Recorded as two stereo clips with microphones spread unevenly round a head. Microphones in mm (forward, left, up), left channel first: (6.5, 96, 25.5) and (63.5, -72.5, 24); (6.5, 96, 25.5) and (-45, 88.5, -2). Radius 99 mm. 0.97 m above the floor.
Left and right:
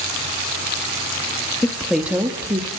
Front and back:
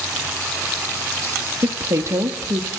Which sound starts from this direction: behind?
A woman speaking, at 1.6 s.